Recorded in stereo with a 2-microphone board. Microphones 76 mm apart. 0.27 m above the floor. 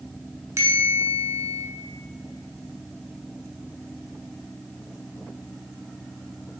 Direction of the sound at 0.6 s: 40° right (ahead or behind).